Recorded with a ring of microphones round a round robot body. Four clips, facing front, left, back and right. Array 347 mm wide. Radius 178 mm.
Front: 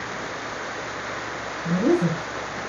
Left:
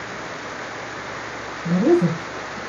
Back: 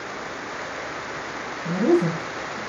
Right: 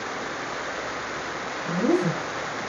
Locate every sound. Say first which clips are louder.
1.6 s a woman speaking: left 6 dB, back 1 dB; 80° left, 1.8 m